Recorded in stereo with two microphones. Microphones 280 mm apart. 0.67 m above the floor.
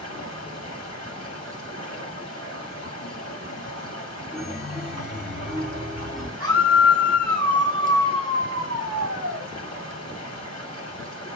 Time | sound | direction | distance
0.0 | running water | 65° left (ahead or behind) | 5.5 m
4.3 | a chime | centre (ahead or behind) | 3 m
6.4 | a scream | 55° right (ahead or behind) | 6.5 m